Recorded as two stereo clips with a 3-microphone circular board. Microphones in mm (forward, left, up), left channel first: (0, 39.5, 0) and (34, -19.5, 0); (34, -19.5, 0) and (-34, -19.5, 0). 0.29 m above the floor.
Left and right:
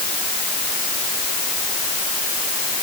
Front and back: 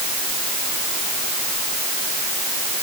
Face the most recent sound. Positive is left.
No sound to turn to.